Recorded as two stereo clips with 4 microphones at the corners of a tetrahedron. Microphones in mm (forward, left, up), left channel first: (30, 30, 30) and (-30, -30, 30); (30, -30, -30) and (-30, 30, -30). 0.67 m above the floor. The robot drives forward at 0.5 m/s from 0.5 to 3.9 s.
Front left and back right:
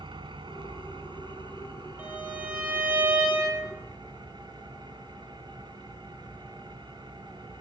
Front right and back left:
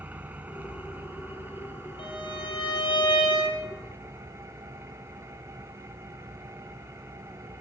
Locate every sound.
0.0 s an engine running: 155° right, 2.5 m; by 7.6 s 165° right, 4.5 m
2.0 s a violin: 60° right, 9.5 m; by 3.6 s 65° right, 9 m